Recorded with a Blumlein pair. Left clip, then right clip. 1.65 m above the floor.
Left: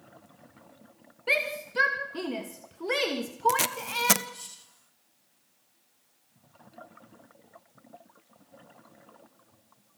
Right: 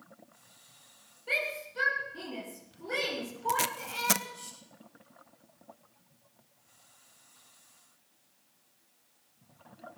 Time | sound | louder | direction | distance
1.3 | a shout | left 5 dB | 60° left | 2.5 m
3.5 | tape being pulled | even | 10° left | 0.7 m